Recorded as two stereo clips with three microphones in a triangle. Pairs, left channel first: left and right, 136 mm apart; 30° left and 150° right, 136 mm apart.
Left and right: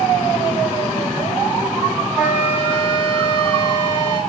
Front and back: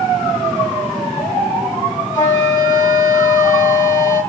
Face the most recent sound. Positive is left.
turn(degrees=-10)